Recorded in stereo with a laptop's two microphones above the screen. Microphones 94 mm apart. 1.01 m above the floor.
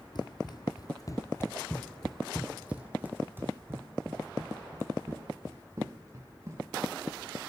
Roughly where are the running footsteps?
Left.